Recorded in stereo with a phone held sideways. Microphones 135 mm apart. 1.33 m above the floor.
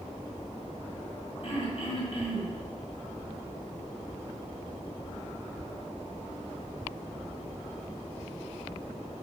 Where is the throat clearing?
45° left (ahead or behind), 1.4 m.